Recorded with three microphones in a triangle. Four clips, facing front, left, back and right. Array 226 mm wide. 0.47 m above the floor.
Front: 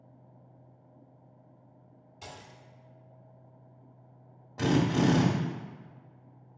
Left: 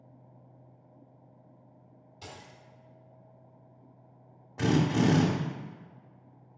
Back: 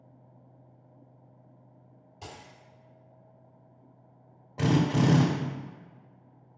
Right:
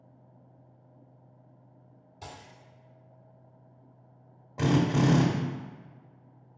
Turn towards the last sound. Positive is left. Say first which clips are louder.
# right 1 dB, back 1 dB
turn(degrees=-125)